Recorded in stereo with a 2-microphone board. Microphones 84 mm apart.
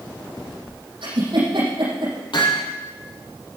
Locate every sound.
1.0 s a giggle: 75° right (ahead or behind), 6.5 m
2.3 s hammering: 65° left (ahead or behind), 5 m